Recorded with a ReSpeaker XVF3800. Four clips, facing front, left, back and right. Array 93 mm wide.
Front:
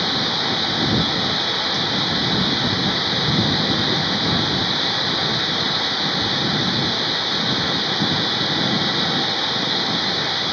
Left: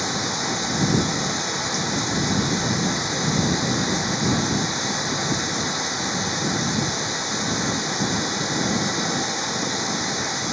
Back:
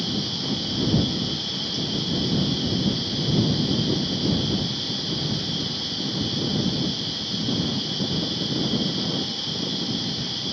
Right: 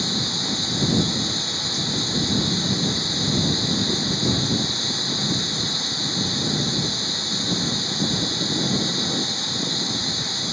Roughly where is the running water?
Ahead left.